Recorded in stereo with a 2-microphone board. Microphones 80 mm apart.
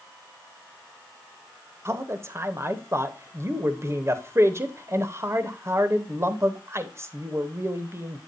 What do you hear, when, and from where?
1.9 s a man speaking: 35° right (ahead or behind), 0.8 m